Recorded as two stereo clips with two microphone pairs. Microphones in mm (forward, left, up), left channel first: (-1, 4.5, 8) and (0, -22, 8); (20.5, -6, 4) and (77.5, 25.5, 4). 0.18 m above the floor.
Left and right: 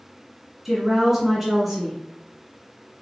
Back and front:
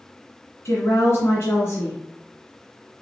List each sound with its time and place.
0.7 s a woman speaking: 155° right, 1.7 m